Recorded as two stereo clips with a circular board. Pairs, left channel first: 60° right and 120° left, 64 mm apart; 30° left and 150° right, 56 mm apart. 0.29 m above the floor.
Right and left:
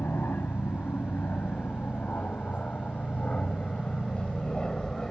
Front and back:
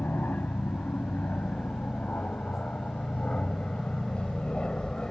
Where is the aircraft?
15° right; by 5.1 s 5° right.